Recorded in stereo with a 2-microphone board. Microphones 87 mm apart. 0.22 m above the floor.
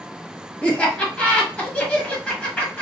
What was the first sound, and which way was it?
Laughter, 15° left (ahead or behind).